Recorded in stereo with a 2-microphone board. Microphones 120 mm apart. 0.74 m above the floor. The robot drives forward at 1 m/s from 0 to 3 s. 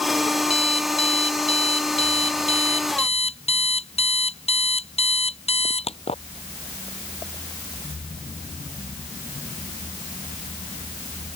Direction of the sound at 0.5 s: 55° left (ahead or behind).